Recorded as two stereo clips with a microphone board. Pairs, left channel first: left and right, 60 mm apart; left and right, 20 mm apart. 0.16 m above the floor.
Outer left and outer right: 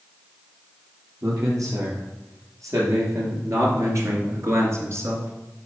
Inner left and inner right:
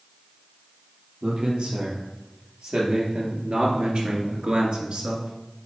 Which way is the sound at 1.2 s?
65° right (ahead or behind).